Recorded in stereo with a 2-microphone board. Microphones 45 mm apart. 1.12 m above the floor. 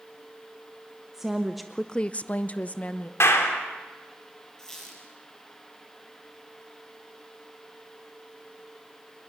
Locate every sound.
1.1 s a woman speaking: 10° right (ahead or behind), 1.0 m; by 3.1 s 30° left (ahead or behind), 1.3 m
3.2 s a clap: 80° left, 3 m
4.6 s a squeak: 10° left (ahead or behind), 5.5 m